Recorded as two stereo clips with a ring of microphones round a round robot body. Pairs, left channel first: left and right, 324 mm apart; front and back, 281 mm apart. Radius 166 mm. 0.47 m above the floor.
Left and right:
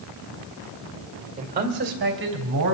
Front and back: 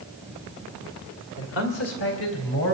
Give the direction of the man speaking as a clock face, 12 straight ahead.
1 o'clock.